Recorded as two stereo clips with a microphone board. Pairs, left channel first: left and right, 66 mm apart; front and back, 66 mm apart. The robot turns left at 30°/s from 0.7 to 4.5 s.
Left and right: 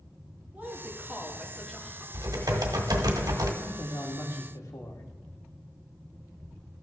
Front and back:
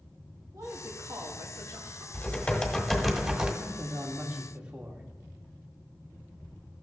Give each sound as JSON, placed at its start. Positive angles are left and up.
{"t": 0.5, "sound": "a woman speaking", "azimuth_deg": -155, "distance_m": 1.9}
{"t": 2.1, "sound": "typing on a keyboard", "azimuth_deg": -65, "distance_m": 1.7}
{"t": 3.6, "sound": "a man speaking", "azimuth_deg": 130, "distance_m": 1.6}